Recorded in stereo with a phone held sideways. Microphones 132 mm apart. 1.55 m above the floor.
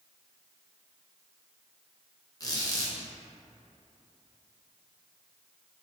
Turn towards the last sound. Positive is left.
turn(degrees=30)  # may be behind; listen again after turning